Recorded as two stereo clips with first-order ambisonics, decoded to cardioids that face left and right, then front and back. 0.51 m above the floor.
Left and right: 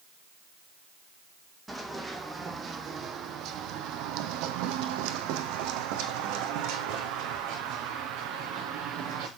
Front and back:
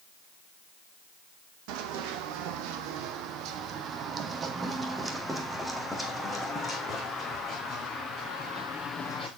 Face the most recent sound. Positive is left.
turn(degrees=-65)